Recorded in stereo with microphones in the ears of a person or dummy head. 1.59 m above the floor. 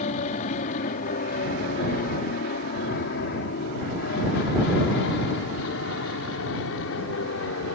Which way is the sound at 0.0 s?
45° left (ahead or behind).